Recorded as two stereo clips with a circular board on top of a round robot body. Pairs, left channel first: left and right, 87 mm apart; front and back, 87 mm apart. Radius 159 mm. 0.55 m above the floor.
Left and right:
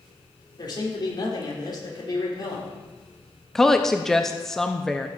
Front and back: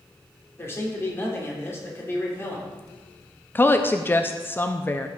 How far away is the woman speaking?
About 0.7 m.